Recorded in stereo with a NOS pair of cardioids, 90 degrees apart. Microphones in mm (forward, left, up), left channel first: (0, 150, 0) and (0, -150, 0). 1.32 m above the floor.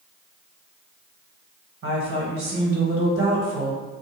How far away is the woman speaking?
About 1.4 m.